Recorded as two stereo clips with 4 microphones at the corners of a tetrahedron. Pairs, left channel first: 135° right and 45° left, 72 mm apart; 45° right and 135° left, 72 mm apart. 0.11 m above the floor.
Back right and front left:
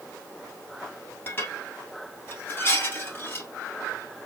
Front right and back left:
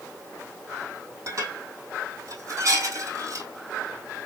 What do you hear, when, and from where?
1.3 s dishes clattering: 165° left, 2 m